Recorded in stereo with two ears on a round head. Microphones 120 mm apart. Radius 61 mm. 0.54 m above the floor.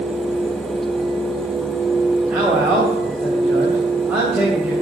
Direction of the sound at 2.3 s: 10° right (ahead or behind).